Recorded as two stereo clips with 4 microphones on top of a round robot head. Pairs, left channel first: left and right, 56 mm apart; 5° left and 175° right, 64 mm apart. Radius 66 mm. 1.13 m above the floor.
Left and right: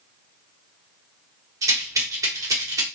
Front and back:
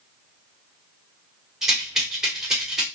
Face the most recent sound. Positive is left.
turn(degrees=-95)